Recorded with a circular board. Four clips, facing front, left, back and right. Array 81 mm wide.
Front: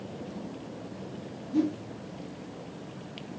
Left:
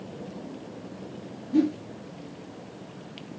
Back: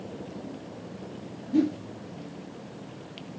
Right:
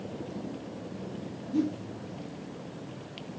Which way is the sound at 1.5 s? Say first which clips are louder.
Left 6 dB, back 3 dB; 130° left.